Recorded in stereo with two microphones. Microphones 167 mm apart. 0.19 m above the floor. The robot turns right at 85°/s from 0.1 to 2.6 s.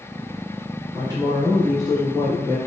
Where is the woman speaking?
25° right (ahead or behind), 1.1 m; by 2.6 s 25° left (ahead or behind), 1.1 m.